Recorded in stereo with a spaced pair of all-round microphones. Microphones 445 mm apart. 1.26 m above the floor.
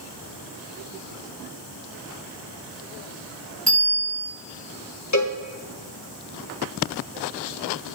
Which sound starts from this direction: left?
A cowbell, at 5.1 s.